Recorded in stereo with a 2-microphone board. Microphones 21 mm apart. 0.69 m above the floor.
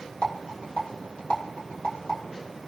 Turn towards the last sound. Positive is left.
turn(degrees=85)